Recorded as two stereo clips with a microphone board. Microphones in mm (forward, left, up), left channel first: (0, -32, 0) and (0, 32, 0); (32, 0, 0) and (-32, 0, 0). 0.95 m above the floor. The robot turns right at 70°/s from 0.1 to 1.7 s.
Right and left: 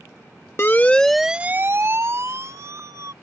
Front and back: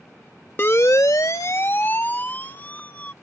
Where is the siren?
45° right; by 3.1 s 65° left.